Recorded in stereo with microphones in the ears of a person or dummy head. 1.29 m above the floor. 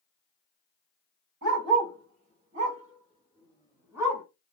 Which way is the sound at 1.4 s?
65° right (ahead or behind).